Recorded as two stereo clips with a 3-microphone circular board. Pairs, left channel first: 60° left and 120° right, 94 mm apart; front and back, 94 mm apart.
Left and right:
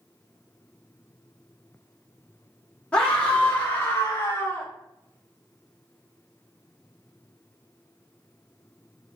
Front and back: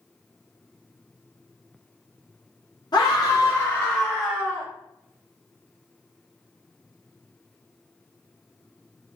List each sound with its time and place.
2.9 s a scream: 10° right, 0.9 m; by 4.7 s 120° left, 0.9 m